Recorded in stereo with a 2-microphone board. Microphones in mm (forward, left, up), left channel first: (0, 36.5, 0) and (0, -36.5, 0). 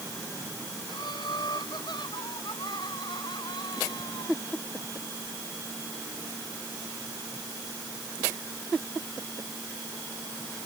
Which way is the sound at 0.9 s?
80° left.